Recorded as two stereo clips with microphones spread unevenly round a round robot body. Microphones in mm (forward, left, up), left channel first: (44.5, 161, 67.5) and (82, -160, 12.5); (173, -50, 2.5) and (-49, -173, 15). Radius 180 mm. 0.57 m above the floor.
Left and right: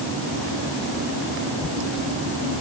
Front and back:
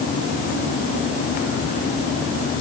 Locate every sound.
Only background noise.